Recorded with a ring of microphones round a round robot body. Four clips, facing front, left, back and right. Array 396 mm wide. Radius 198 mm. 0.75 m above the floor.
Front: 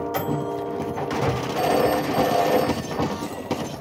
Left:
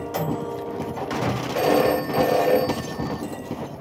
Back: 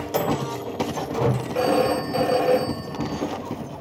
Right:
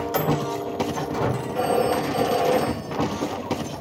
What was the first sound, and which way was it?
A microwave, 150° right.